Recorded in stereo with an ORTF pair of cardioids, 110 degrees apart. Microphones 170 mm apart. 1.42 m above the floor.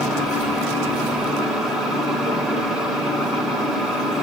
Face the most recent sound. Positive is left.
turn(degrees=-5)